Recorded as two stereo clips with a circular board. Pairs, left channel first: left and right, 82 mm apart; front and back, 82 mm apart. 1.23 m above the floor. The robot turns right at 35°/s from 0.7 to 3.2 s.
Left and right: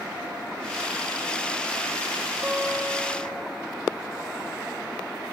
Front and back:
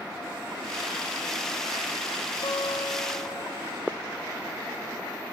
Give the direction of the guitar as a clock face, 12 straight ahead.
1 o'clock.